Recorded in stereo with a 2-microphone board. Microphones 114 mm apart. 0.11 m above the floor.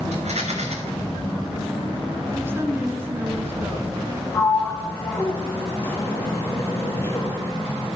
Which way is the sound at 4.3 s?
20° left (ahead or behind).